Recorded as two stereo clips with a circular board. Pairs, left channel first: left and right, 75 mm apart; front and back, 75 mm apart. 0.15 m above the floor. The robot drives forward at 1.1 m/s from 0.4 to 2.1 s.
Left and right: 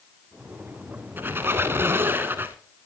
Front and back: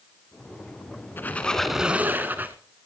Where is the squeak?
45° right, 1.2 m; by 2.5 s 130° right, 1.1 m.